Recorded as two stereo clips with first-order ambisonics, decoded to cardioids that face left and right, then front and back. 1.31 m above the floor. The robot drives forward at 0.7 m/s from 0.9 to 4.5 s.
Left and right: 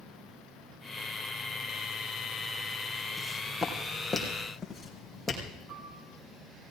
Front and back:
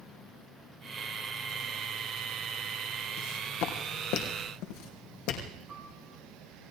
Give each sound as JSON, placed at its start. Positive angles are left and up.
{"t": 3.2, "sound": "footsteps", "azimuth_deg": 0, "distance_m": 3.5}
{"t": 5.7, "sound": "a piano", "azimuth_deg": -110, "distance_m": 5.0}